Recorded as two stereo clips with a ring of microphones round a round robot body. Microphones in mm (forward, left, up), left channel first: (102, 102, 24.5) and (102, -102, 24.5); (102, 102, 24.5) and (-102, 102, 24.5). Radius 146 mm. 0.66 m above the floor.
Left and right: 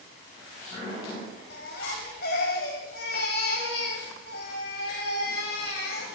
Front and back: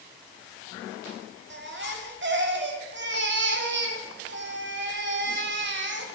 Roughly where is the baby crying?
Behind left.